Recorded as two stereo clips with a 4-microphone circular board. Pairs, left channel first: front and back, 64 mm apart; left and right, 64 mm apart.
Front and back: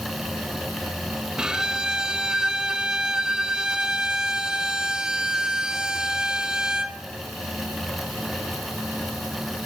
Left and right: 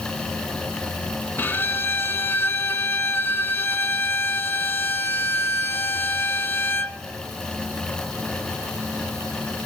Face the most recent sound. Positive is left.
turn(degrees=110)